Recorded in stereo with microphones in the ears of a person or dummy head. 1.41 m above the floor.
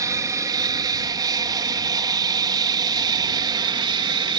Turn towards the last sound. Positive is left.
turn(degrees=-25)  # may be behind; listen again after turning